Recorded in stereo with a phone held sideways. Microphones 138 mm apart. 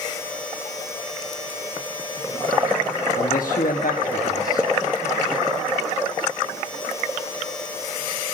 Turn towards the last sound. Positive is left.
turn(degrees=80)